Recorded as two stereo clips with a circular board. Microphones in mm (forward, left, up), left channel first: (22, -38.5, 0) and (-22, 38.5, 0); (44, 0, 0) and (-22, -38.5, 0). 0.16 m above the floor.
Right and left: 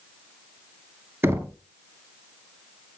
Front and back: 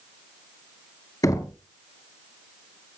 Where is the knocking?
55° left, 1.6 m.